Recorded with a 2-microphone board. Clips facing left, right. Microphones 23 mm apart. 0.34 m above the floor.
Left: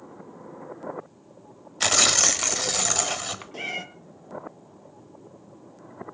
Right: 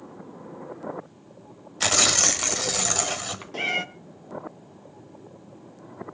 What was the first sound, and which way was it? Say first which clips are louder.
Tearing paper: even; 5° left (ahead or behind).